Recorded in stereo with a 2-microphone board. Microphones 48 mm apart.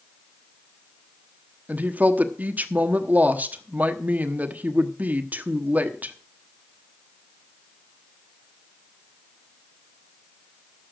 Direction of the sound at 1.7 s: 35° right (ahead or behind).